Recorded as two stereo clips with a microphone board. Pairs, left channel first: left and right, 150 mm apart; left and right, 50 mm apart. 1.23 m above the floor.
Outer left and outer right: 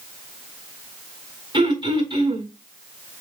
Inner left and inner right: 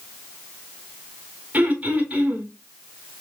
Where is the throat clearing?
35° right (ahead or behind), 5 m.